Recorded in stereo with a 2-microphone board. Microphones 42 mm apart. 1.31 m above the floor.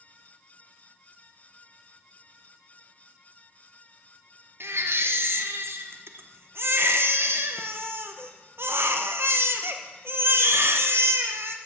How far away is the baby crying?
About 0.8 m.